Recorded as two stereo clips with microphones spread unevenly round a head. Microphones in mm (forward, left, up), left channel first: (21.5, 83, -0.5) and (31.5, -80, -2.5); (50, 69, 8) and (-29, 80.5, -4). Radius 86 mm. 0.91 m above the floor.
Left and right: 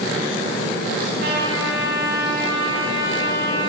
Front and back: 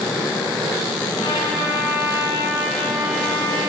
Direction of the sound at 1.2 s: 65° right.